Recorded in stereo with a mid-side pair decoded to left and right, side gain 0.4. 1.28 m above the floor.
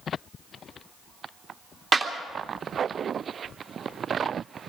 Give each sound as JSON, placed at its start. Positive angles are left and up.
{"t": 1.9, "sound": "a clap", "azimuth_deg": -50, "distance_m": 3.0}